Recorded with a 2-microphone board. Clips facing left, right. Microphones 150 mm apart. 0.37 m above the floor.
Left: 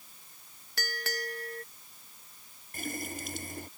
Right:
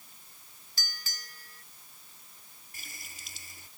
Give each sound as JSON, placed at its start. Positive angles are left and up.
{"t": 0.8, "sound": "a bell", "side_deg": 60}
{"t": 2.7, "sound": "a running tap", "side_deg": 50}